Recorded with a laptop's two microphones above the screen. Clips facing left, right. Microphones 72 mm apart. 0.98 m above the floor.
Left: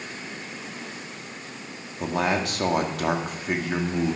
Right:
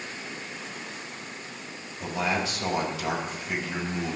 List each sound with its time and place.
2.0 s a man speaking: 60° left (ahead or behind), 2 m